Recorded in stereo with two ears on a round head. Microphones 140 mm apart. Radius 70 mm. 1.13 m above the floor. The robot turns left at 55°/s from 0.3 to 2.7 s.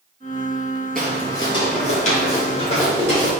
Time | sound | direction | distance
0.9 | footsteps | 5° left (ahead or behind) | 1.2 m